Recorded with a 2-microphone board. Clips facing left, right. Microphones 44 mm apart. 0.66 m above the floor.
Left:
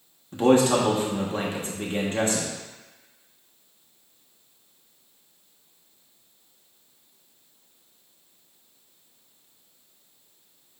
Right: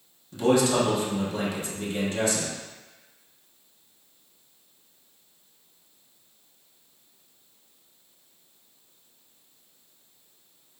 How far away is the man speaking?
About 0.8 m.